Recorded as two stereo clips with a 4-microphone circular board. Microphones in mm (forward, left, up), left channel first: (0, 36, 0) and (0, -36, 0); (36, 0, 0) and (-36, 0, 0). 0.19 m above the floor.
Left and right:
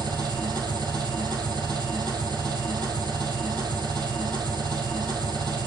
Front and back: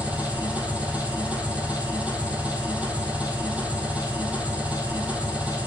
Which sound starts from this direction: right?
An engine running, at 0.0 s.